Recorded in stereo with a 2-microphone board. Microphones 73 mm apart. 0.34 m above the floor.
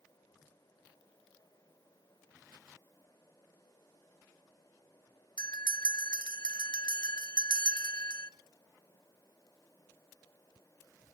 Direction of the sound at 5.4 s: 70° left (ahead or behind).